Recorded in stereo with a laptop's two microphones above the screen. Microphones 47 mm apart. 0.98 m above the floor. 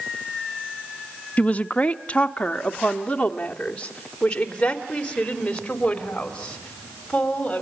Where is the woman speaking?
35° left (ahead or behind), 0.8 m; by 7.6 s 20° left (ahead or behind), 5 m.